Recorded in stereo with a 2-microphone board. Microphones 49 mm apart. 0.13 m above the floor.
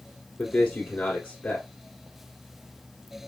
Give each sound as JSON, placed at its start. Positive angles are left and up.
{"t": 0.4, "sound": "a man speaking", "side_deg": 25, "distance_m": 1.7}